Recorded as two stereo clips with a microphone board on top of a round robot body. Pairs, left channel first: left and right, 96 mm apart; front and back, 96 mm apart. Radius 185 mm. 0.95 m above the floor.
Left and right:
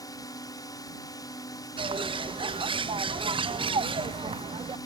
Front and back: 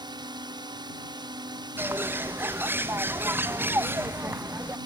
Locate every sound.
0.0 s a drone: 140° left
1.8 s a bird: 115° right